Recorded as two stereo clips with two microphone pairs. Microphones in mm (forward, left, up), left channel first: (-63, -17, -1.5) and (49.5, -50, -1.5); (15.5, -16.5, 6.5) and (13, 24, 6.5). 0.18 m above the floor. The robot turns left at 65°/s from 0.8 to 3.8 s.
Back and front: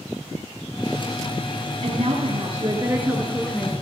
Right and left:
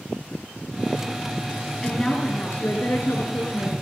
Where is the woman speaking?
5° right, 2.5 m; by 3.7 s 130° right, 2.5 m.